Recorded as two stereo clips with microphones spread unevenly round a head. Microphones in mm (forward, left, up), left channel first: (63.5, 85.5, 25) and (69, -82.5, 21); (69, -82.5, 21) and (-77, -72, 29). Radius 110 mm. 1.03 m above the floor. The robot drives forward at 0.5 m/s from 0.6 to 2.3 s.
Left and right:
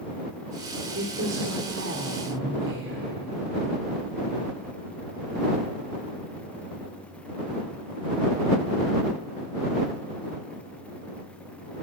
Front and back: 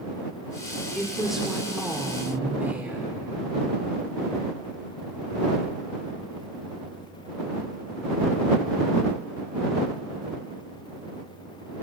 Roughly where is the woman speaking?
Right.